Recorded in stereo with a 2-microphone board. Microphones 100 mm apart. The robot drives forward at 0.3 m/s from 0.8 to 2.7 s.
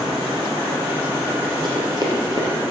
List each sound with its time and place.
1.6 s running footsteps: 45° right (ahead or behind), 2.5 m